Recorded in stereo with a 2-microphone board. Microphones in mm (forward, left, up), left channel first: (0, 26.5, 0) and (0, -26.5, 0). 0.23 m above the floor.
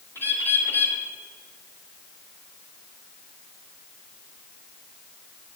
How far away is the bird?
About 2.5 m.